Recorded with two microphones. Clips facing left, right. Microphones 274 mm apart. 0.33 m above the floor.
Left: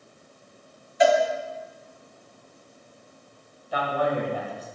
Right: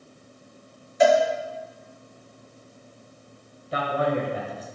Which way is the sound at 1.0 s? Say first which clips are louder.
Right 2 dB; 55° right (ahead or behind).